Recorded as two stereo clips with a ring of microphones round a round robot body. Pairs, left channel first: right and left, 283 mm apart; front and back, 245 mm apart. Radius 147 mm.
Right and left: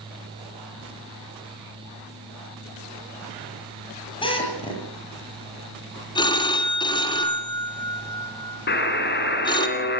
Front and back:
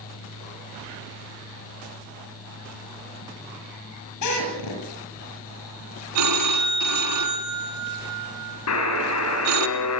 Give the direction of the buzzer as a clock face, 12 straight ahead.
1 o'clock.